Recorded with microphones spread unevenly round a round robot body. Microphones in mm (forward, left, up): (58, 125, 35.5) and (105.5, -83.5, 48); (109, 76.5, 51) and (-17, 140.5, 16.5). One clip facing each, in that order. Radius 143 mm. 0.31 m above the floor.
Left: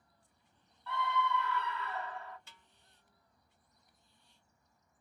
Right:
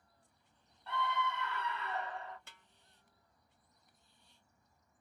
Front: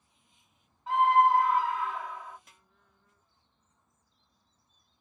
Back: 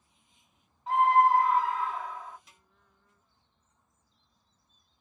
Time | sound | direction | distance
0.9 | a scream | 145° right | 1.9 m
2.5 | a snare drum | 70° right | 0.7 m